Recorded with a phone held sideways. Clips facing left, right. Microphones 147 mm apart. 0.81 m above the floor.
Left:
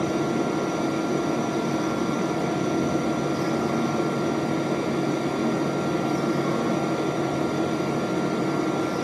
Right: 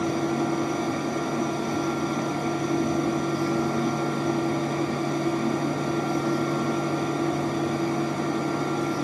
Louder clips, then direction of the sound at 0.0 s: Left 1 dB; 75° left (ahead or behind).